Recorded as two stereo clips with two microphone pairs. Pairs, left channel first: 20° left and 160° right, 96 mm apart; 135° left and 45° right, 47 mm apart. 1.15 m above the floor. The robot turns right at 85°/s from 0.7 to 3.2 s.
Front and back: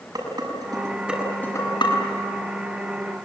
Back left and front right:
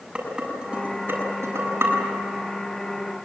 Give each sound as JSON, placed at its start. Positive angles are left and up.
{"t": 0.1, "sound": "dishes clattering", "azimuth_deg": -115, "distance_m": 7.5}